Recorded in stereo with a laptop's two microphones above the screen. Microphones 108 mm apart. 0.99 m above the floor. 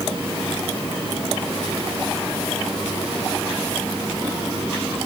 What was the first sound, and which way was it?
Only background noise.